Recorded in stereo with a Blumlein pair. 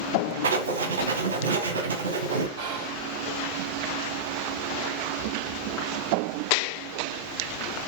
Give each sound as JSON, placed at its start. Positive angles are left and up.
{"t": 0.4, "sound": "writing", "azimuth_deg": -60, "distance_m": 1.2}
{"t": 2.6, "sound": "whispering", "azimuth_deg": -45, "distance_m": 2.0}